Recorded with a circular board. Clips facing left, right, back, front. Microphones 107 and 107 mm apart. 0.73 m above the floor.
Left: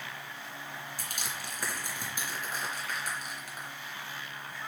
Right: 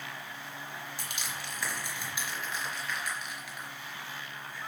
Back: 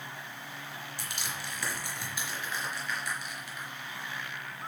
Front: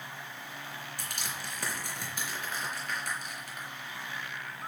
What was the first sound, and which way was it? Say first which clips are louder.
Crushing: even, back 1 dB; 45° left.